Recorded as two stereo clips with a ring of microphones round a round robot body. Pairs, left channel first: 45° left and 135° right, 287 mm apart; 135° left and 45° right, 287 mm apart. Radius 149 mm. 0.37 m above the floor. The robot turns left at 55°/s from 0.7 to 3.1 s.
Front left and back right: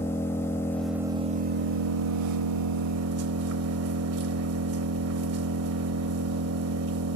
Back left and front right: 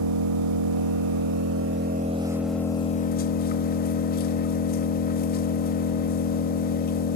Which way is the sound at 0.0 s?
35° right.